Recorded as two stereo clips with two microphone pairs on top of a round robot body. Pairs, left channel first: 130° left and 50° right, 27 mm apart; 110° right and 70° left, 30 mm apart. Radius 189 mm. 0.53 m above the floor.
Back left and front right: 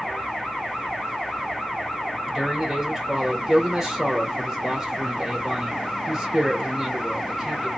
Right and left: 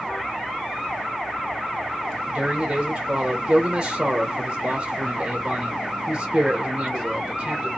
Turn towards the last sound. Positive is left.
turn(degrees=30)